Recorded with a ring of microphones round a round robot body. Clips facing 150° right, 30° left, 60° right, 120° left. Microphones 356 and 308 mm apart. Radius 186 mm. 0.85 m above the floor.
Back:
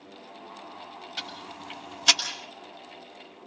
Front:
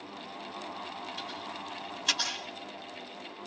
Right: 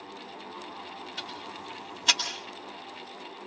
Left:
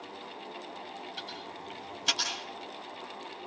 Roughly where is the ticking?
Behind right.